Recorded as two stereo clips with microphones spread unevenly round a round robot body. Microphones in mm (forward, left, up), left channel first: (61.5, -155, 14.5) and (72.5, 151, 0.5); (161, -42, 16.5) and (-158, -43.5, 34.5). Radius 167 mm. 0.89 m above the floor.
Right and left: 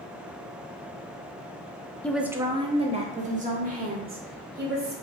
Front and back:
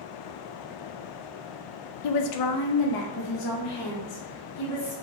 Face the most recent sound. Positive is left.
turn(degrees=30)